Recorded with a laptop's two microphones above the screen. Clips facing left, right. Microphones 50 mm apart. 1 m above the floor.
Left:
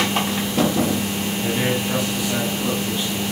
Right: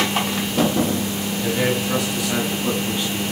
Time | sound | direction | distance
1.4 | a man speaking | 10° right (ahead or behind) | 8.5 m